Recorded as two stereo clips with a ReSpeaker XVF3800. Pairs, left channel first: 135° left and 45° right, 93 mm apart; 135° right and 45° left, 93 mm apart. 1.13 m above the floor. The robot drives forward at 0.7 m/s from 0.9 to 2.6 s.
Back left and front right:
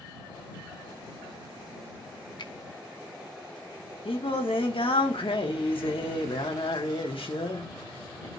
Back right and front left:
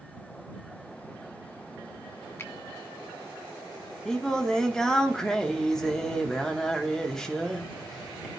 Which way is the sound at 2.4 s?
165° left.